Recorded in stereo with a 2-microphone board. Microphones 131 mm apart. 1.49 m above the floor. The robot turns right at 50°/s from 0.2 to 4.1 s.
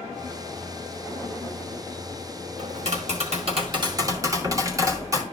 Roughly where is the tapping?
Right.